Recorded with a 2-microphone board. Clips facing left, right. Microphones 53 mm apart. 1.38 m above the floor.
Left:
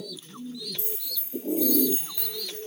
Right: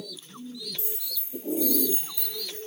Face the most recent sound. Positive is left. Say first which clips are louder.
# left 2 dB
turn(degrees=45)  # may be behind; listen again after turning